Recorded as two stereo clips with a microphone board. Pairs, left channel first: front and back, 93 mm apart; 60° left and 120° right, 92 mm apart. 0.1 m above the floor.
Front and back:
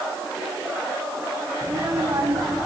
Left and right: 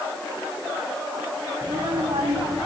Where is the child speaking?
135° right, 4.5 m; by 2.7 s 120° right, 4.5 m.